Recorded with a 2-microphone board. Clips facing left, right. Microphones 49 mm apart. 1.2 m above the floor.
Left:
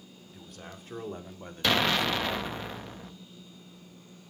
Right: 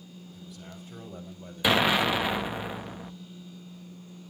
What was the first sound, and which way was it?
A man speaking, 55° left (ahead or behind).